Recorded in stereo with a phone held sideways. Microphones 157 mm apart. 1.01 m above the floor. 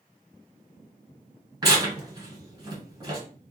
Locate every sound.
1.6 s tearing paper: 25° right (ahead or behind), 2.5 m